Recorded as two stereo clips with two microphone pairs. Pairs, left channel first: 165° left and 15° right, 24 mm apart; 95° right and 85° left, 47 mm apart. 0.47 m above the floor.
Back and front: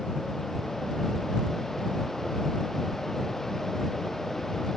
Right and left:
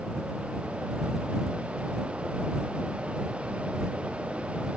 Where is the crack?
No crack in this recording.